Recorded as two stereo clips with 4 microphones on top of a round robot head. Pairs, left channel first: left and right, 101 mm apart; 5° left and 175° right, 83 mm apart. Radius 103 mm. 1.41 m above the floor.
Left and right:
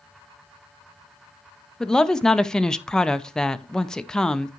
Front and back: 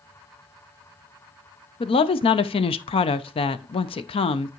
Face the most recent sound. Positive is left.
turn(degrees=5)